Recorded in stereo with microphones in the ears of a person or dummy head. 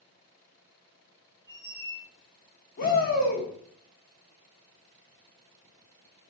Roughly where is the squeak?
Right.